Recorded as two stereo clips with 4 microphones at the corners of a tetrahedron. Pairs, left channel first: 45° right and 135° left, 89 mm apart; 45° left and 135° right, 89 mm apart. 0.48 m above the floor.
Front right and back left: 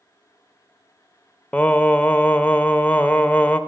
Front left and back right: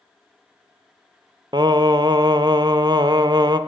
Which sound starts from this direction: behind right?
Singing, at 1.5 s.